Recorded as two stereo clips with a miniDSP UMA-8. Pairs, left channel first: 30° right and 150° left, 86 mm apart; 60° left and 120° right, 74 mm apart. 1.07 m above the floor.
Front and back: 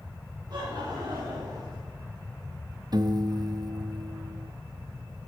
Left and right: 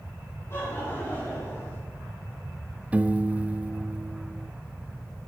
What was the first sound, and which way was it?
Laughter, 115° left.